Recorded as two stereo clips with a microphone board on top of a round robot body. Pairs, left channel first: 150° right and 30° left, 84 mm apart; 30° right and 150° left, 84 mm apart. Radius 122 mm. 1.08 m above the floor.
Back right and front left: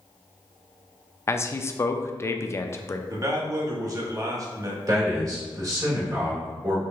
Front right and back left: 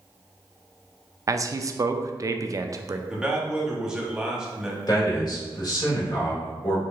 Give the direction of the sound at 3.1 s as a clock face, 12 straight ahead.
10 o'clock.